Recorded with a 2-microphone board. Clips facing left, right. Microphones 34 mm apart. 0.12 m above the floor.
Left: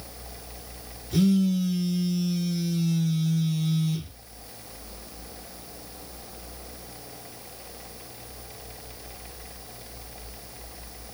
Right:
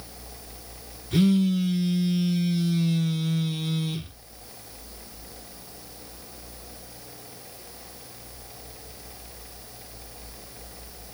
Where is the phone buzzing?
45° right (ahead or behind), 0.5 m.